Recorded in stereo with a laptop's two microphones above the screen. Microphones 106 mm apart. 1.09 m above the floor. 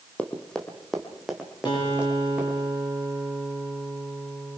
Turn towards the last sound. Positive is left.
turn(degrees=45)  # may be behind; listen again after turning